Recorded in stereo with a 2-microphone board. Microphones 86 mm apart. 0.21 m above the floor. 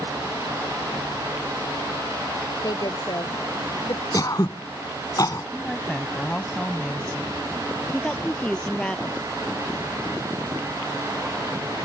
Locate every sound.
2.6 s a woman speaking: 55° left (ahead or behind)
4.1 s throat clearing: 45° left (ahead or behind)
5.5 s a woman speaking: 15° left (ahead or behind)
7.9 s a woman speaking: 10° left (ahead or behind)